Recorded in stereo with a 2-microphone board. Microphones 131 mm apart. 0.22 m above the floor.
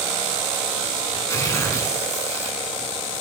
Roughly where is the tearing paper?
Left.